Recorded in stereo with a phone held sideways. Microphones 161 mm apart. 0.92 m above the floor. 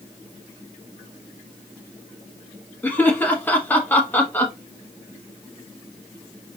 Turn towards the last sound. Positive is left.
turn(degrees=10)  # may be behind; listen again after turning